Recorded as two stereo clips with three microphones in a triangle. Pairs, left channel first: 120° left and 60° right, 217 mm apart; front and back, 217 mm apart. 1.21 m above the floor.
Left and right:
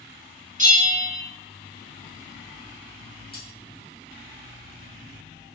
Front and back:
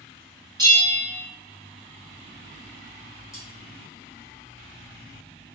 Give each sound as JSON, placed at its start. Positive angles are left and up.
{"t": 0.6, "sound": "a bell", "azimuth_deg": -110, "distance_m": 1.1}
{"t": 3.3, "sound": "cutlery clinking", "azimuth_deg": 75, "distance_m": 1.6}